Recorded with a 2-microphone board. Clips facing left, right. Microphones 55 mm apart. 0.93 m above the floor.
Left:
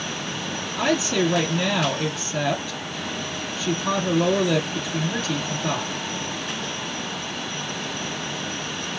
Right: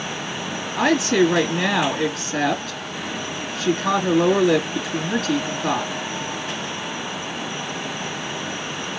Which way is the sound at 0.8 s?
70° right (ahead or behind).